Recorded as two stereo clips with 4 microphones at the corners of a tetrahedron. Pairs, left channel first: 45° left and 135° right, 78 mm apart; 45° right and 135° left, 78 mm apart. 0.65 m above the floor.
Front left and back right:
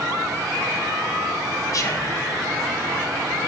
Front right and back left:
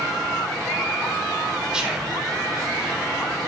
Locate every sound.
1.7 s whispering: 60° left, 0.7 m